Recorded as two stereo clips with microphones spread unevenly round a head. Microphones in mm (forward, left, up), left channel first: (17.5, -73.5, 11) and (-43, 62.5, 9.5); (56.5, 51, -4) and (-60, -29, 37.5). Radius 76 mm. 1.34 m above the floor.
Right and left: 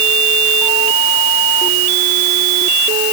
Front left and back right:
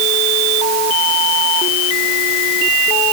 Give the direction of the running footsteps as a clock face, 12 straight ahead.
I don't hear running footsteps.